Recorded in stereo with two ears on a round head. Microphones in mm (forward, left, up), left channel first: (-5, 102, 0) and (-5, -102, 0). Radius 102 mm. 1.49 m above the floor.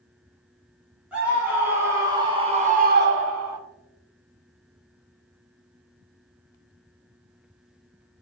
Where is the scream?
5° right (ahead or behind), 1.8 m; by 3.6 s 85° right, 0.6 m.